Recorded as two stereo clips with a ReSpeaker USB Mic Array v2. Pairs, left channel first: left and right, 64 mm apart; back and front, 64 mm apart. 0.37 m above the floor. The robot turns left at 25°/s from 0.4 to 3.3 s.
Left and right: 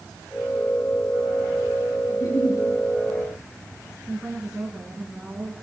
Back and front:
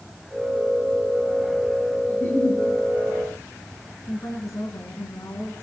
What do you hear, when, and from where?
2.1 s a giggle: 115° left, 9 m; by 2.6 s 105° left, 9 m
4.1 s a woman speaking: 170° right, 3.5 m